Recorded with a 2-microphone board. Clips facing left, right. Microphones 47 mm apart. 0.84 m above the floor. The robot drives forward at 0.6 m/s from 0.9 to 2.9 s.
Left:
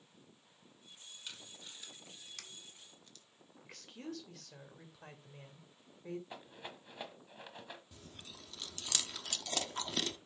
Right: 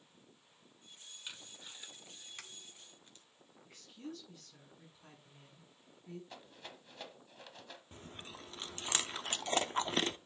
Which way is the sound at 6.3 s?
20° left (ahead or behind).